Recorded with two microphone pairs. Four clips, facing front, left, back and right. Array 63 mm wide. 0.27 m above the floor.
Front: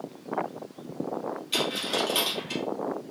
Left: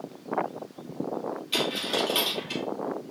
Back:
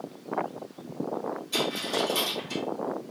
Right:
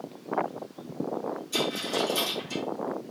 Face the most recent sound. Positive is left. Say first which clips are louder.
# left 1 dB, front 1 dB
turn(degrees=80)